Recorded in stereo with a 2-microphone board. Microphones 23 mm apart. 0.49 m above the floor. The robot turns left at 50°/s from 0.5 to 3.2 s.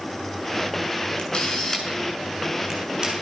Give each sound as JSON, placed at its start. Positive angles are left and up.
{"t": 1.2, "sound": "a camera shutter", "side_deg": 55, "distance_m": 6.5}